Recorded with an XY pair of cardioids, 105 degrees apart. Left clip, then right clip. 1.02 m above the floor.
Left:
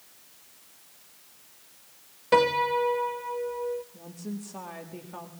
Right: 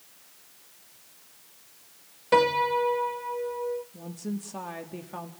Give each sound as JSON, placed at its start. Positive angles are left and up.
{"t": 2.3, "sound": "a piano", "azimuth_deg": 5, "distance_m": 0.8}
{"t": 3.9, "sound": "a woman speaking", "azimuth_deg": -25, "distance_m": 1.6}